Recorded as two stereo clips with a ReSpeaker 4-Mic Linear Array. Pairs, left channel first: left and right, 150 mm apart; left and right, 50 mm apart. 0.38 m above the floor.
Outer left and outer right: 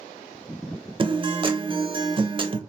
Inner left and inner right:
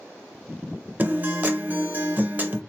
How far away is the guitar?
About 0.5 m.